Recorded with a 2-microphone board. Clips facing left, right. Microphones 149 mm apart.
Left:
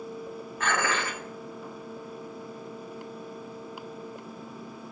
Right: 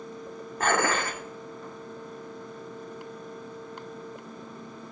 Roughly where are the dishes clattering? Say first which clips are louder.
Right 4 dB; right.